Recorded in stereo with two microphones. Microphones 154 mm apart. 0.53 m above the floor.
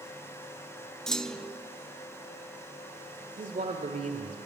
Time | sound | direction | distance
1.1 | a clunk | 5° left (ahead or behind) | 0.7 m
3.4 | a man speaking | 55° right (ahead or behind) | 1.4 m